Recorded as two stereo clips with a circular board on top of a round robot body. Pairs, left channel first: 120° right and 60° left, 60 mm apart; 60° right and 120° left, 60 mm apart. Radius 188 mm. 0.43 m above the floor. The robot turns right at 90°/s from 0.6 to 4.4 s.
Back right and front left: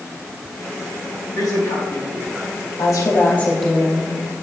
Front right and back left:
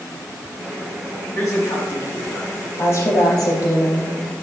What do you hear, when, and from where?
1.4 s a man speaking: 120° right, 3.5 m; by 2.6 s 5° right, 3.5 m
2.8 s a woman speaking: 105° right, 3.5 m; by 4.2 s 25° left, 3.5 m